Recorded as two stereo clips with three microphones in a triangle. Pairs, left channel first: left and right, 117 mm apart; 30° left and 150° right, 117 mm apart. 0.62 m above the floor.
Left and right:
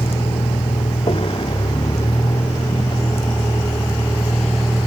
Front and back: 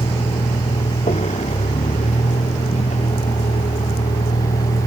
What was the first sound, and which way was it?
A vehicle, 55° left.